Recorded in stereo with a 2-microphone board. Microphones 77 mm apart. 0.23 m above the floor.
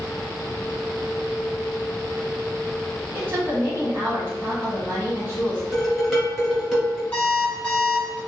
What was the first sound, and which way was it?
A woman speaking, 30° right (ahead or behind).